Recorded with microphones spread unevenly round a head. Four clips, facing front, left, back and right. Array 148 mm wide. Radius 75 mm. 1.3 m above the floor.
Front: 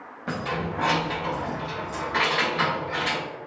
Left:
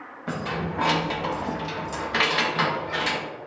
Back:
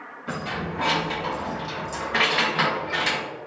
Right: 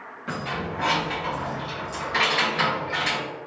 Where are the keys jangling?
40° left, 0.7 m; by 3.2 s 165° left, 1.1 m.